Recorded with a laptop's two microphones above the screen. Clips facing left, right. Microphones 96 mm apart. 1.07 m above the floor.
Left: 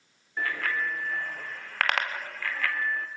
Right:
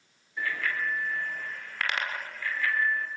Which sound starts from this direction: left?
A bicycle bell, at 0.4 s.